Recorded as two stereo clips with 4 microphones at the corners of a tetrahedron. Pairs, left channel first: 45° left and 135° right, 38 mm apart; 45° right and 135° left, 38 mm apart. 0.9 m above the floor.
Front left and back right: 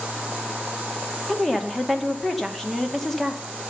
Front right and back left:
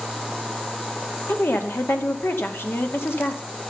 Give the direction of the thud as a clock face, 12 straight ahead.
No thud in this recording.